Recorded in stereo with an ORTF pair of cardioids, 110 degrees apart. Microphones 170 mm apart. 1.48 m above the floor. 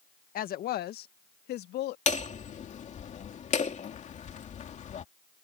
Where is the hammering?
45° left.